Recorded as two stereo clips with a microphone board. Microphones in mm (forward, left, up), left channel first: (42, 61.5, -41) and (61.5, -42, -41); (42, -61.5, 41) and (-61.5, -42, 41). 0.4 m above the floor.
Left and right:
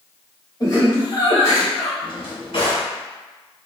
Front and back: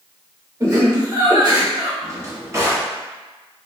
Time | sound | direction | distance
0.6 | laughter | 120° left | 1.6 m
2.0 | a drawer | 110° left | 1.3 m